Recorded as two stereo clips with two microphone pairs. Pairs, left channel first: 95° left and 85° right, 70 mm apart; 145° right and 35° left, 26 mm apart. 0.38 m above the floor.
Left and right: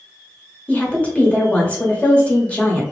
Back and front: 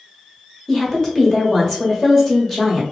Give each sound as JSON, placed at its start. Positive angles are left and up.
{"t": 0.7, "sound": "a woman speaking", "azimuth_deg": 150, "distance_m": 1.2}